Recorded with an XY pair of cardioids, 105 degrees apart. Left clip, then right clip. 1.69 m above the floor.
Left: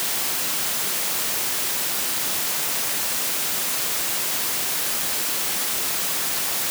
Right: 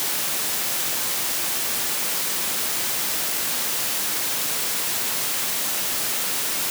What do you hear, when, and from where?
Only background noise.